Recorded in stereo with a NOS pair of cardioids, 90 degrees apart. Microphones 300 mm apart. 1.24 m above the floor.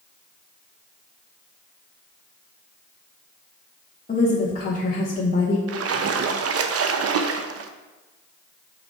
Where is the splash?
50° right, 0.8 m.